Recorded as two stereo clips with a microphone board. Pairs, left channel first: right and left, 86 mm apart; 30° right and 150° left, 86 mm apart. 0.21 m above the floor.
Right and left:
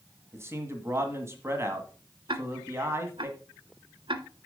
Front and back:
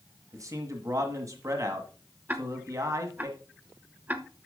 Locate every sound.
0.3 s a man speaking: 130° left, 1.5 m
2.3 s ticking: 80° left, 0.9 m